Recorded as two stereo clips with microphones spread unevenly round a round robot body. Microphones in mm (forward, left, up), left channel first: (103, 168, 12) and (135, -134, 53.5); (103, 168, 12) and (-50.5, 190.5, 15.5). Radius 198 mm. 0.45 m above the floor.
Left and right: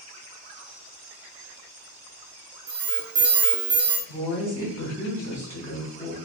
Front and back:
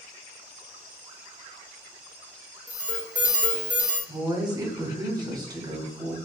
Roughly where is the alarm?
Behind right.